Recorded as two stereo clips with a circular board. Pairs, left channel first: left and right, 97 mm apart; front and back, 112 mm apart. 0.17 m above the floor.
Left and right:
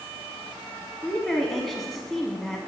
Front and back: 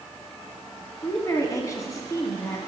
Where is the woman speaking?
5° left, 1.2 m.